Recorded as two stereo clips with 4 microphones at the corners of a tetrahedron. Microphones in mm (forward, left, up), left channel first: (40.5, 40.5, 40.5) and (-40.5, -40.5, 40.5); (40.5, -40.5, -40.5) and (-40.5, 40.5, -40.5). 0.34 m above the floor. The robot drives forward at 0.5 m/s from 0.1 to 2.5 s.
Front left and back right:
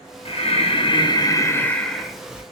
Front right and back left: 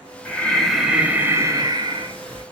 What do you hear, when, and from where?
0.2 s breathing: 30° left, 0.8 m; by 2.4 s 145° left, 0.7 m